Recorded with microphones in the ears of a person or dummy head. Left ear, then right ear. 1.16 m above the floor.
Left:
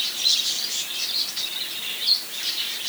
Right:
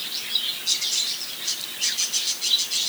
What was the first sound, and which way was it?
Only background noise.